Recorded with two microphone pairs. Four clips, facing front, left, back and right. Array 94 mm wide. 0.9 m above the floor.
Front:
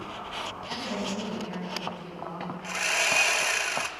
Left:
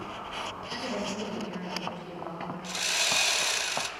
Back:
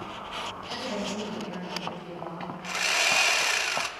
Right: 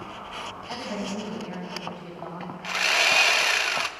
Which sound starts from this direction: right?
Sawing, at 2.6 s.